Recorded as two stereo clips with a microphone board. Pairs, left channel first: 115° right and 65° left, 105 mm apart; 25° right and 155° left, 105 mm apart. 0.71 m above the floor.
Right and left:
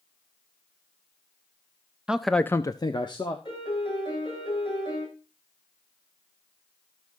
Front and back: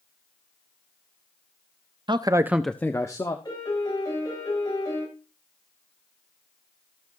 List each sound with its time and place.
2.1 s a man speaking: 145° left, 0.7 m; by 3.4 s 70° right, 1.2 m
3.5 s a piano: 75° right, 8.5 m